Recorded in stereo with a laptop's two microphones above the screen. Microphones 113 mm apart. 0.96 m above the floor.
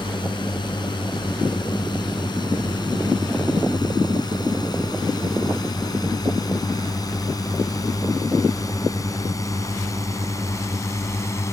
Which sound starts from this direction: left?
A drone, at 0.0 s.